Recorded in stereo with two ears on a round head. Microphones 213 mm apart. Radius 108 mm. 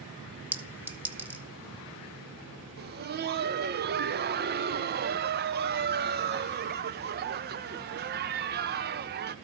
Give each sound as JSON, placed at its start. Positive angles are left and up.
{"t": 0.5, "sound": "a clink", "side_deg": -5, "distance_m": 1.1}
{"t": 2.8, "sound": "laughter", "side_deg": -40, "distance_m": 0.8}